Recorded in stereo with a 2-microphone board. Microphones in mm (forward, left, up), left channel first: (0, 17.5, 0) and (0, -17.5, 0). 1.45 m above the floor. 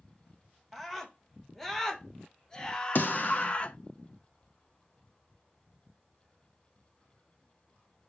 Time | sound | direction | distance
0.7 | a scream | 5° left (ahead or behind) | 2.5 m
3.0 | a snare drum | 60° left (ahead or behind) | 2.5 m